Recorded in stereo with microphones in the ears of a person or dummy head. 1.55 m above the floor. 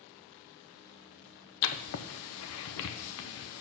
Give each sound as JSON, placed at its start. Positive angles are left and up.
{"t": 1.6, "sound": "writing", "side_deg": 70, "distance_m": 0.7}